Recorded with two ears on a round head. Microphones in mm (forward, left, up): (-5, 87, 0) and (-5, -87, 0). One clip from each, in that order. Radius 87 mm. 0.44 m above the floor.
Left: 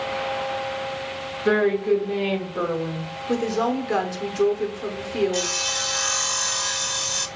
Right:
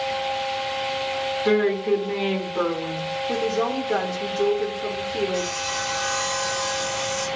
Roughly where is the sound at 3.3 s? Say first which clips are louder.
Left 2 dB; centre.